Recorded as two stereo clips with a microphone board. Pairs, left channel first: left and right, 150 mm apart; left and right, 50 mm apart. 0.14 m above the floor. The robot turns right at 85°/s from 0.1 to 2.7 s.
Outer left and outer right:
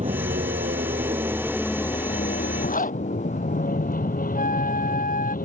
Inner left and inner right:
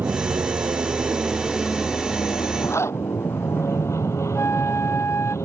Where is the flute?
65° left (ahead or behind).